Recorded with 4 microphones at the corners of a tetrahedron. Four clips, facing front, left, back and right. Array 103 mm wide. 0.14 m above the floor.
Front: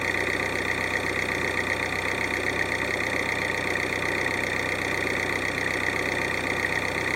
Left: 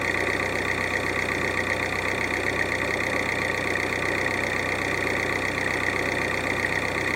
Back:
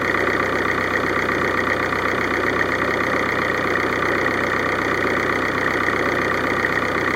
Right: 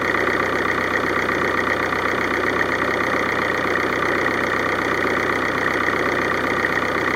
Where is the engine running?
135° right, 0.8 m.